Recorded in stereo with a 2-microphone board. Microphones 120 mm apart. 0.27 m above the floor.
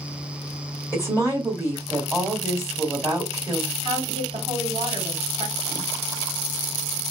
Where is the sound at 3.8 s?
45° right (ahead or behind), 1.9 m.